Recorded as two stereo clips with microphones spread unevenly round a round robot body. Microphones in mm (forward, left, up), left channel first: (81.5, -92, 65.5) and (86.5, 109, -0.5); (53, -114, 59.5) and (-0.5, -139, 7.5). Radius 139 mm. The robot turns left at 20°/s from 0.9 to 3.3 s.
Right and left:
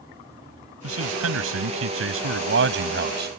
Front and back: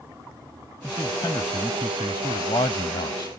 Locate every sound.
0.8 s a man speaking: 95° left; by 3.3 s 50° left